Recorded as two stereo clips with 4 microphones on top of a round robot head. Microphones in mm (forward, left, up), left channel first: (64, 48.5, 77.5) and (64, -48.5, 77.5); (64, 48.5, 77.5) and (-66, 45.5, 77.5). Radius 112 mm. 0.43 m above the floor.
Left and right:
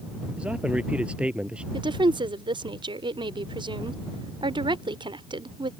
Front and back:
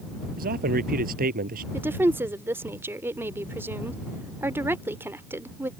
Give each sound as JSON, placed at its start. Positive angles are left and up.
{"t": 0.4, "sound": "a man speaking", "azimuth_deg": -170}
{"t": 1.7, "sound": "a woman speaking", "azimuth_deg": -110}